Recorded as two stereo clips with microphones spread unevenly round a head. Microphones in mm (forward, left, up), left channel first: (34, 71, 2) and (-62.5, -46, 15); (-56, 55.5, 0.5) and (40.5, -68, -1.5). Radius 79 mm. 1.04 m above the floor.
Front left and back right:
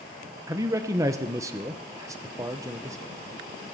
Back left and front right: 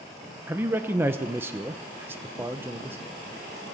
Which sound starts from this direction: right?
A man speaking, at 0.5 s.